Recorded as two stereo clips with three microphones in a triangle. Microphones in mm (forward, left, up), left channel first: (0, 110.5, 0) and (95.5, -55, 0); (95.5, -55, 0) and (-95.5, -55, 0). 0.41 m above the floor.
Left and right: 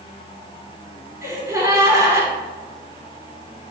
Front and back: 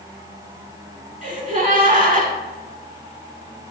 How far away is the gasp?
About 0.8 m.